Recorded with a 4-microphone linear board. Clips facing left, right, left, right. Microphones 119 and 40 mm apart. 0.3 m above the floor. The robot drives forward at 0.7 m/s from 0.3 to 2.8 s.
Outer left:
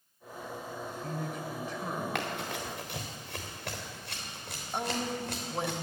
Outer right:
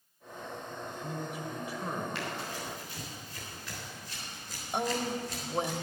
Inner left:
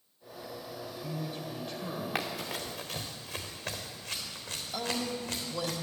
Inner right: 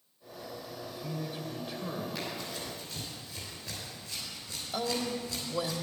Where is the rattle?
No rattle in this recording.